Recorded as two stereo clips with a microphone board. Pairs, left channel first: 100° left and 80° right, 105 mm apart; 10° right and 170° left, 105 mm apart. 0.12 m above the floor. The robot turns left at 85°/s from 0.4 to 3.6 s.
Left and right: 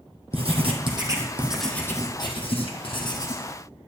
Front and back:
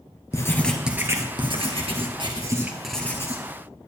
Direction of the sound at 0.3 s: 70° right.